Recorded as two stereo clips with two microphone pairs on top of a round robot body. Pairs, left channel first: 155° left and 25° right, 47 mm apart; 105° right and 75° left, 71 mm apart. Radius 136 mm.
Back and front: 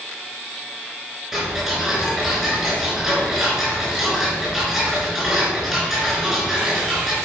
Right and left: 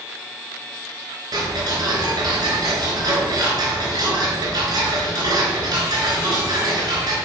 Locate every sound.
1.3 s ticking: 55° left, 3.5 m